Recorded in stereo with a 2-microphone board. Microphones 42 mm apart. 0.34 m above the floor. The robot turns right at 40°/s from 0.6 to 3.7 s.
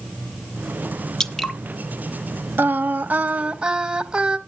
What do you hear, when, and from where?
1.2 s dripping: 15° left (ahead or behind), 0.8 m; by 1.6 s centre (ahead or behind), 0.8 m
2.6 s singing: 70° right, 0.8 m; by 4.4 s 25° right, 0.8 m